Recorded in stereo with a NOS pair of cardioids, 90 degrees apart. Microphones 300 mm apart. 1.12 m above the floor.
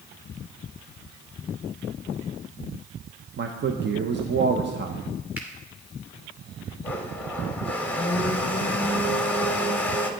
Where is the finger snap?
5° right, 3 m.